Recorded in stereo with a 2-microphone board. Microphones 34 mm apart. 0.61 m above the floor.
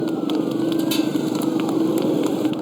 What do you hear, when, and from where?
0.0 s a motorcycle: 5° left (ahead or behind)